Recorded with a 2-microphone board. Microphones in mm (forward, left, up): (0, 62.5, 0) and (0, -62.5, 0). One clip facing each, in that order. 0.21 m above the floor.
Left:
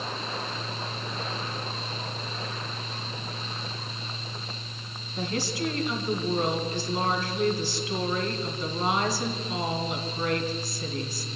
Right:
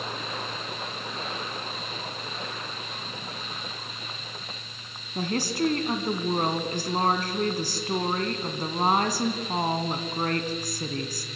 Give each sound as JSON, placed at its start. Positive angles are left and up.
{"t": 5.2, "sound": "a woman speaking", "side_deg": -50, "distance_m": 1.9}